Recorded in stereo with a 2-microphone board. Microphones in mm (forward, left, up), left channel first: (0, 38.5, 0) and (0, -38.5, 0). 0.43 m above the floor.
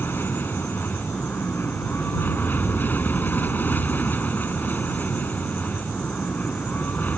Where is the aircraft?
25° left (ahead or behind); by 7.2 s 20° left (ahead or behind).